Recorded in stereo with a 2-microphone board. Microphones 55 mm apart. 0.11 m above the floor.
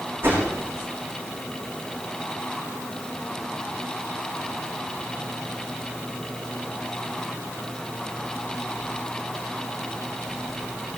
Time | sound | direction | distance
0.2 | a whoosh | 40° right (ahead or behind) | 7.5 m